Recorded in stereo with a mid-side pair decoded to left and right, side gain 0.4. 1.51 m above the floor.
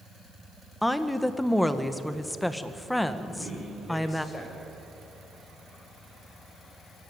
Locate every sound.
0.8 s a woman speaking: 10° left, 1.6 m
3.2 s a man speaking: 25° left, 7.5 m